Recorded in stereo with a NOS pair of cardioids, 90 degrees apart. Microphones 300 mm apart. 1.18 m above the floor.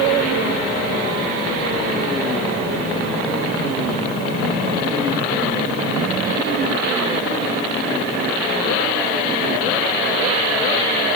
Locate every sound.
Only background noise.